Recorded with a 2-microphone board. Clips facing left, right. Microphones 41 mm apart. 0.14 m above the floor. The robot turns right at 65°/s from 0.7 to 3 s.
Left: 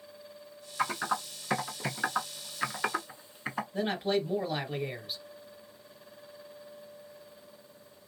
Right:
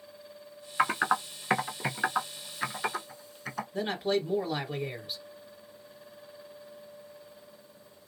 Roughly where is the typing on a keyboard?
Right.